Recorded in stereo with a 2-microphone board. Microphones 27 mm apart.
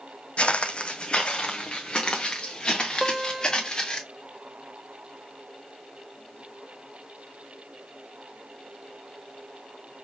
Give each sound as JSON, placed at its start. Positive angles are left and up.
{"t": 0.4, "sound": "footsteps", "side_deg": 50, "distance_m": 0.5}
{"t": 3.0, "sound": "a guitar", "side_deg": -20, "distance_m": 0.6}